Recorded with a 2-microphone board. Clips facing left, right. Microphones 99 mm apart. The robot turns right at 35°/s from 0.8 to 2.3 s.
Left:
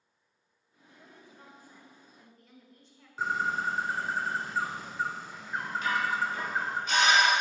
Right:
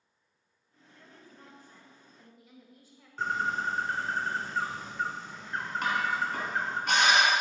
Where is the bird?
5° left (ahead or behind), 1.5 m.